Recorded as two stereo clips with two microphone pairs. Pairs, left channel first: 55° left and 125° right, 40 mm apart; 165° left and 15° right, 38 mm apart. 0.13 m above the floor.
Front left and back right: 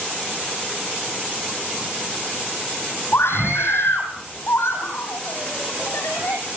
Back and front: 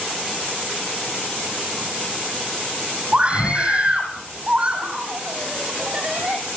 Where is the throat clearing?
I don't hear throat clearing.